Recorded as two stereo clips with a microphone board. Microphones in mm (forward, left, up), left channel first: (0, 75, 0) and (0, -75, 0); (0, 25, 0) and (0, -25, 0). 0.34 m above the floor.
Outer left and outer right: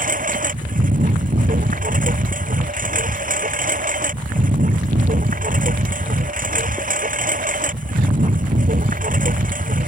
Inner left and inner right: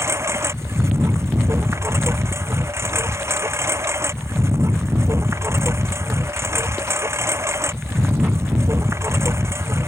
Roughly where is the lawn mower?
Right.